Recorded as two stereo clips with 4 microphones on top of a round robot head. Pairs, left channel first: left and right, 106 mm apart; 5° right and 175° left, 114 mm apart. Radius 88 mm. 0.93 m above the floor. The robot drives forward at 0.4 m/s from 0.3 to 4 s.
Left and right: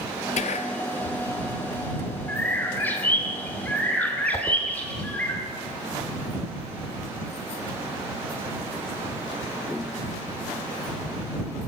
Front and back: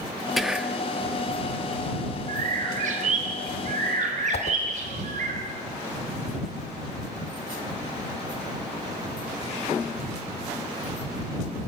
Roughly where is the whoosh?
Ahead.